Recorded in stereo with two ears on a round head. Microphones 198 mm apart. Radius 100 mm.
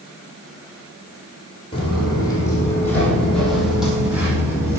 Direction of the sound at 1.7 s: 25° left (ahead or behind).